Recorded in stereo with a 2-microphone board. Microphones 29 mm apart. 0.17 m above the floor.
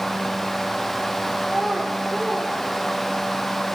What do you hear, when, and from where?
1.4 s a child speaking: 5° left (ahead or behind), 4 m; by 3.4 s 35° right (ahead or behind), 3.5 m